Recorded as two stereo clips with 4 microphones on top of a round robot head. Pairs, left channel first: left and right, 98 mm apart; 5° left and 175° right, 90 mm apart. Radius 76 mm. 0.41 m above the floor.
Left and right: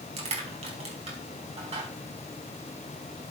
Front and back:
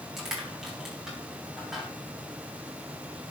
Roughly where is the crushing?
Right.